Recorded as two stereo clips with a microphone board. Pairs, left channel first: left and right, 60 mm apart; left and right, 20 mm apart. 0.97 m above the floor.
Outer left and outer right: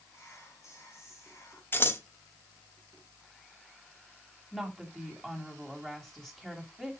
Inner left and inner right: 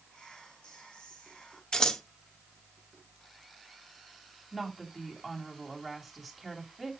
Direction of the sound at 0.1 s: 55° left (ahead or behind).